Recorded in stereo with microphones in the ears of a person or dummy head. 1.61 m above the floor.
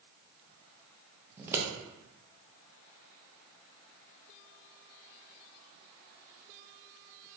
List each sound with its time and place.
1.4 s scissors: 10° right (ahead or behind), 0.6 m